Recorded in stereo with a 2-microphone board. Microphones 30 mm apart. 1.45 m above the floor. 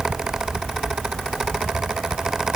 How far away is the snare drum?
No snare drum in this recording.